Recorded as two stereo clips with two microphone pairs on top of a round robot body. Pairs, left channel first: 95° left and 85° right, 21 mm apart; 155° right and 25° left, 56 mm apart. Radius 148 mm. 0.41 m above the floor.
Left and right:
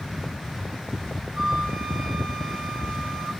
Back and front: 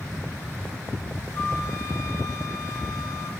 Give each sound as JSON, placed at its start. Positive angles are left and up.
{"t": 1.4, "sound": "a flute", "azimuth_deg": -130, "distance_m": 1.8}